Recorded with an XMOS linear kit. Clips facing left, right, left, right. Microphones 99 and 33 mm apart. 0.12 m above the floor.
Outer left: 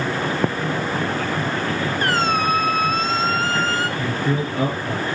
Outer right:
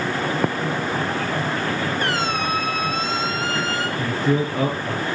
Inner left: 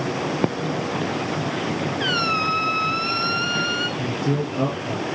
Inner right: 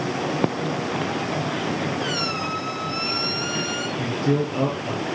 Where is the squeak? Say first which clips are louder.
Outer left 3 dB, inner left 4 dB; 40° left (ahead or behind), 0.9 m.